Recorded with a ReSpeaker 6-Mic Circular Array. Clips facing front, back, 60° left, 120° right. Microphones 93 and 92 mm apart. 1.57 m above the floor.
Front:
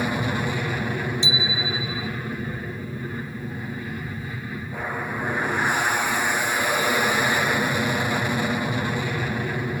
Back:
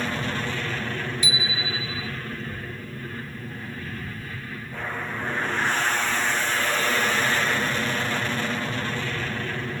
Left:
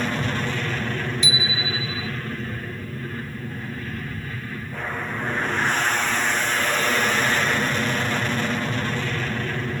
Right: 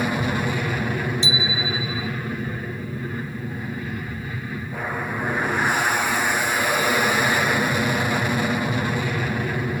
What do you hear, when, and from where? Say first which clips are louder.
0.0 s an aircraft: front 3 dB, right 2 dB; 55° right
1.2 s a bicycle bell: front 3 dB, right 2 dB; 60° right